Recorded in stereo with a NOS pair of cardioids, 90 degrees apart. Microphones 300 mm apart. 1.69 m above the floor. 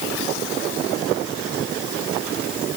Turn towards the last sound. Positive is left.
No sound to turn to.